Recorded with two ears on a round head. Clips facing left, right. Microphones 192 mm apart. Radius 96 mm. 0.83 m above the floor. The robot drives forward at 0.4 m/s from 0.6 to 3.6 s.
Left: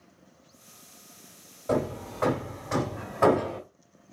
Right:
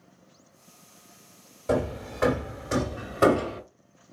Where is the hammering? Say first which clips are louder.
Right 1 dB; 30° right (ahead or behind), 1.8 m; by 3.6 s 45° right (ahead or behind), 1.2 m.